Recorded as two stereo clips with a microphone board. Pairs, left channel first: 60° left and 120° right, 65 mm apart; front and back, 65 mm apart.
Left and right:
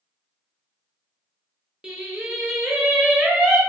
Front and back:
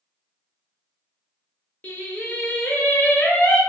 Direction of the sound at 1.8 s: 45° right.